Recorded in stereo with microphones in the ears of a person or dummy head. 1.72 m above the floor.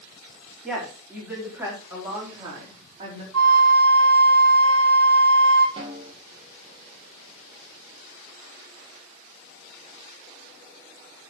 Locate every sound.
0.6 s a woman speaking: centre (ahead or behind), 4.5 m; by 3.2 s 35° right (ahead or behind), 4 m
3.3 s a flute: 80° right, 1.7 m
5.8 s a snare drum: 30° right (ahead or behind), 2.5 m